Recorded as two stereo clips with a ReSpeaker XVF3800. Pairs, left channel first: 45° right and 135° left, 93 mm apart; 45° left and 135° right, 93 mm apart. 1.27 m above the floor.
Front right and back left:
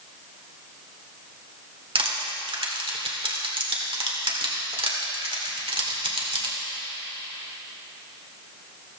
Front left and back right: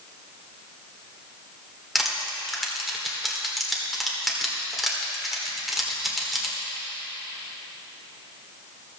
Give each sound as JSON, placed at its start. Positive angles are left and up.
{"t": 1.9, "sound": "crushing", "azimuth_deg": 135, "distance_m": 1.9}